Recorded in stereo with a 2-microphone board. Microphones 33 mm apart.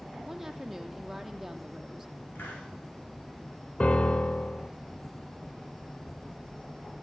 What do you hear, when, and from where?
0.3 s a woman speaking: 5° right (ahead or behind), 3 m
2.4 s a hiss: 75° left (ahead or behind), 6.5 m
3.8 s a piano: 40° left (ahead or behind), 0.7 m